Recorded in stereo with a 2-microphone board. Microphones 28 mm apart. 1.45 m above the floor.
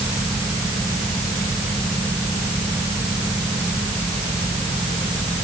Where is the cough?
I don't hear a cough.